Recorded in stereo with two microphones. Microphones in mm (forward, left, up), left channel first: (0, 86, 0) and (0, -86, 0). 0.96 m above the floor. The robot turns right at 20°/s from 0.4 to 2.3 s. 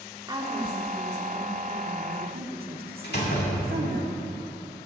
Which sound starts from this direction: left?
A door slam, at 3.0 s.